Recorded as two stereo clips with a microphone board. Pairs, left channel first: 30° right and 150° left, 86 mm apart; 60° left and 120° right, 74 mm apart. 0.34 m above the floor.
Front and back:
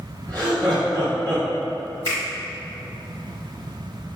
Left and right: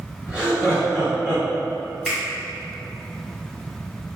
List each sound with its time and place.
0.3 s laughter: 165° left, 1.9 m
2.0 s a finger snap: 160° left, 1.7 m